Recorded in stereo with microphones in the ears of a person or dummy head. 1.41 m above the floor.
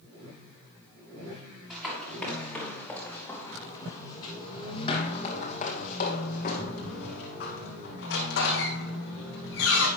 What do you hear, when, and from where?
1.7 s running footsteps: 5° right (ahead or behind), 3.5 m; by 9.9 s 70° left (ahead or behind), 4 m